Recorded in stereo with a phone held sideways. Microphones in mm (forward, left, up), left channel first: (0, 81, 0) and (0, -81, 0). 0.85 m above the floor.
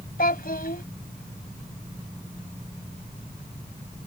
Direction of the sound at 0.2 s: 70° left (ahead or behind).